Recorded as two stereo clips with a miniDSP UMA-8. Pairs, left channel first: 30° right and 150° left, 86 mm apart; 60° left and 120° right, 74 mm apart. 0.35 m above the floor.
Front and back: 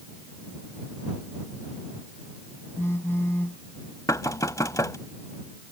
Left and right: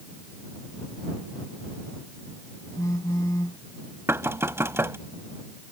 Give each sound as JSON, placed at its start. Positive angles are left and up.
{"t": 2.8, "sound": "a phone buzzing", "azimuth_deg": 25}
{"t": 4.1, "sound": "knocking", "azimuth_deg": -75}